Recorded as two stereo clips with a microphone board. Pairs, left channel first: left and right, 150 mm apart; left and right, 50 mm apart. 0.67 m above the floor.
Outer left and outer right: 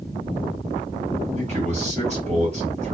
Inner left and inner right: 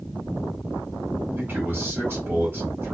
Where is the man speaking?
45° right (ahead or behind), 1.4 m.